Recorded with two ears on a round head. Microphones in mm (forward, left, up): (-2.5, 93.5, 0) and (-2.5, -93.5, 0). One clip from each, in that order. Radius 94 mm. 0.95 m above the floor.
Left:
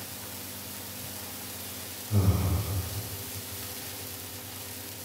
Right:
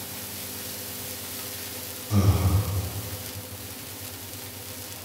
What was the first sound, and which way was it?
Breathing, 85° right.